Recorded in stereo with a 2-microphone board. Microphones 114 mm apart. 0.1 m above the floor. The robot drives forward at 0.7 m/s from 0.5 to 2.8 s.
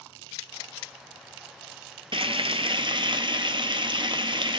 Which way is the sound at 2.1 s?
55° right (ahead or behind).